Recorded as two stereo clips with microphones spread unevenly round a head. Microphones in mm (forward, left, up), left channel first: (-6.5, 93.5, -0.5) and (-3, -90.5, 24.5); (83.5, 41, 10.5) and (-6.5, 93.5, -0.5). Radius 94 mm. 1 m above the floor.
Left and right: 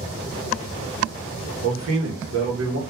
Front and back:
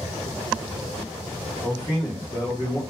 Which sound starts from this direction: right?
A man speaking, at 1.6 s.